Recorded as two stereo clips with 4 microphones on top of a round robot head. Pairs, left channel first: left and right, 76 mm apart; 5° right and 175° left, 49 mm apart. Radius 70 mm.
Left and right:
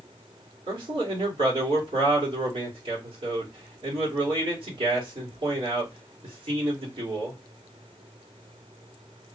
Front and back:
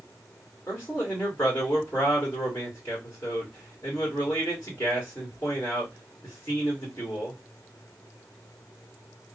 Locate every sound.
0.7 s a man speaking: 70° right, 1.6 m